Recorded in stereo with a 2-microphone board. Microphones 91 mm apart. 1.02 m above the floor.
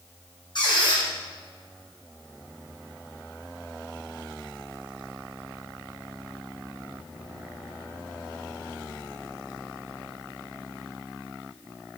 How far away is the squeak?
About 4 m.